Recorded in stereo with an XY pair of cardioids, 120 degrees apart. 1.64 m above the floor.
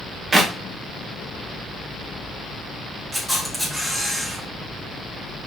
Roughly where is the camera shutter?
Ahead.